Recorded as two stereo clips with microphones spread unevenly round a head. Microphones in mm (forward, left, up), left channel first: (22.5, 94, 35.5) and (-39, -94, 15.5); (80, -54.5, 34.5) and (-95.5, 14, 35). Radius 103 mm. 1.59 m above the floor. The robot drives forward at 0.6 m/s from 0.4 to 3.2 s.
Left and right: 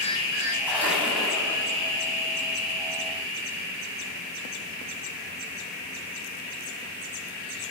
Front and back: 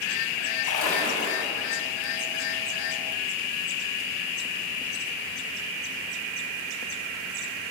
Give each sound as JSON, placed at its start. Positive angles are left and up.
{"t": 0.6, "sound": "a splash", "azimuth_deg": -25, "distance_m": 9.0}